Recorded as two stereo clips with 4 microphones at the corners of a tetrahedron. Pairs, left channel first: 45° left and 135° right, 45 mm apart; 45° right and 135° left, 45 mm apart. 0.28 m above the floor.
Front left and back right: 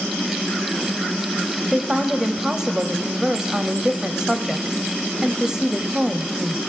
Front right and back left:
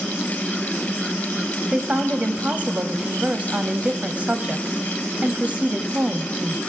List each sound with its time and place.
1.7 s a woman speaking: 160° left, 1.0 m